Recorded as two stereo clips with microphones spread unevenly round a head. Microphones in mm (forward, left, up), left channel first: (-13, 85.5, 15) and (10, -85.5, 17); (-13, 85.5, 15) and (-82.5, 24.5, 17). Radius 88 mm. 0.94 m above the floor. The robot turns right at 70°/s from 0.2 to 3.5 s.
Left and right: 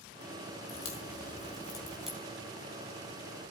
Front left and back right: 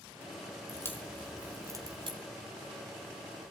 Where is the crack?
95° left, 5 m; by 2.2 s 160° right, 5 m.